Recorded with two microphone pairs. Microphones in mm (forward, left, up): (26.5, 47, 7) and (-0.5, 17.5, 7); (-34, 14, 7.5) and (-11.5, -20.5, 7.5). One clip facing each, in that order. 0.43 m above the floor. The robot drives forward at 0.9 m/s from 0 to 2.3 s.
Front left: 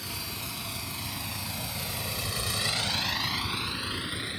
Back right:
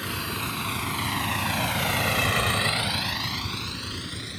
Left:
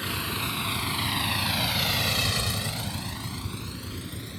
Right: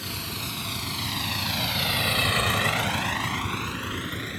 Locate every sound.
0.0 s a vehicle: straight behind; by 4.4 s 25° right